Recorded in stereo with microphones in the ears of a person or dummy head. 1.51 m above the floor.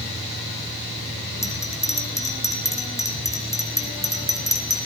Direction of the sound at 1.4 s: 20° left (ahead or behind).